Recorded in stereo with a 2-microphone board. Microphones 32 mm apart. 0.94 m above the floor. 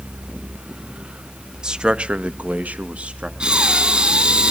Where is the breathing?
35° right (ahead or behind), 2.5 m.